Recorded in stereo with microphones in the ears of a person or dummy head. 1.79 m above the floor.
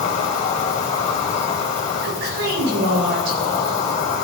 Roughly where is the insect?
Left.